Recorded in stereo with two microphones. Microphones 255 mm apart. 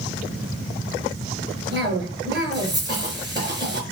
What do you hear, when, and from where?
1.7 s a cough: 45° right (ahead or behind), 4.5 m